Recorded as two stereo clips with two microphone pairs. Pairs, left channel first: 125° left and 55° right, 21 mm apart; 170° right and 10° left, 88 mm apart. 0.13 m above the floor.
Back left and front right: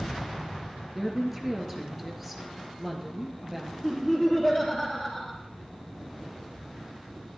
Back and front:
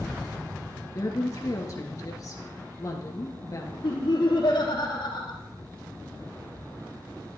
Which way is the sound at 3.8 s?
150° right.